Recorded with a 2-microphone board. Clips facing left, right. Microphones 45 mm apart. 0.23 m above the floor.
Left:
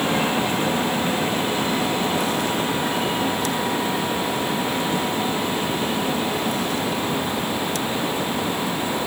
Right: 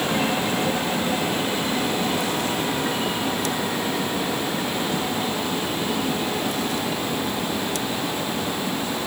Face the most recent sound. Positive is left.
No sound to turn to.